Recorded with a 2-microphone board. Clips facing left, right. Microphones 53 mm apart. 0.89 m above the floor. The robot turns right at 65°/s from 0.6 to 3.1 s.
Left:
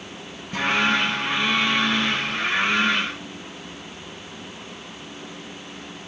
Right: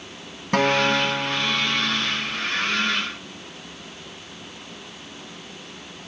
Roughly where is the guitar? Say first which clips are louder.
Right 2 dB; right.